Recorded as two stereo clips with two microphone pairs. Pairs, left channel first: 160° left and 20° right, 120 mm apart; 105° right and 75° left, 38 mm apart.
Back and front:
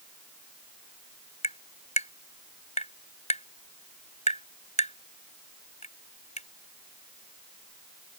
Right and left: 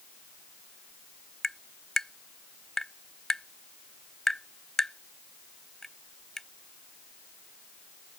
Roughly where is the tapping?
Behind.